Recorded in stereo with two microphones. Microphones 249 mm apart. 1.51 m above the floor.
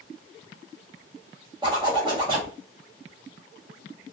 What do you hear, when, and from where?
1.6 s a zipper: 20° right (ahead or behind), 1.0 m